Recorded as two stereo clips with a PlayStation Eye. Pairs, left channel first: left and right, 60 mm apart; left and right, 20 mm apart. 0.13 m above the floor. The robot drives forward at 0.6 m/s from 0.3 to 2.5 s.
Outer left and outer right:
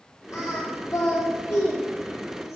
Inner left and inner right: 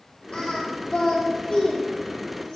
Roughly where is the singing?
Left.